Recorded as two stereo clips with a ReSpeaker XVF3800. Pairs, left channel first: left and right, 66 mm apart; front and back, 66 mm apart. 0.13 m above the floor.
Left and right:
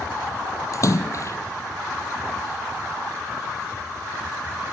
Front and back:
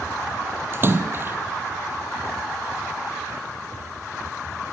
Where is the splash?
125° left, 1.4 m.